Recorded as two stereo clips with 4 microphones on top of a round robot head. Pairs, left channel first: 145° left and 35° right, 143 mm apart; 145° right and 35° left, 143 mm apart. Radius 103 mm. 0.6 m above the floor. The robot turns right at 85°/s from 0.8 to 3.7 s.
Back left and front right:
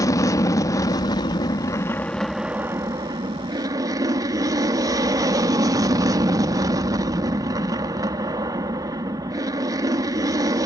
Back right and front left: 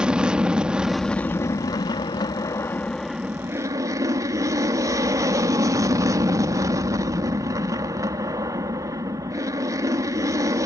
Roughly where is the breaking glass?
I don't hear breaking glass.